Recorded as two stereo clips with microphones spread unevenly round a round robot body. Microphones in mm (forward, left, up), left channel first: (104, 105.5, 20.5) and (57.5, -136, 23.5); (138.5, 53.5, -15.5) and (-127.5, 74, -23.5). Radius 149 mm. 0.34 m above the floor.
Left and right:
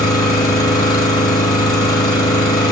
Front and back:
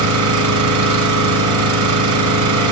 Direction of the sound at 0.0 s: 155° left.